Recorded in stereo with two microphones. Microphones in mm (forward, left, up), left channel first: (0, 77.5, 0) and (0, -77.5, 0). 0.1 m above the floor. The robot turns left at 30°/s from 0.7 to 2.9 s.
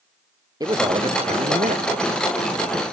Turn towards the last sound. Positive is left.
turn(degrees=-90)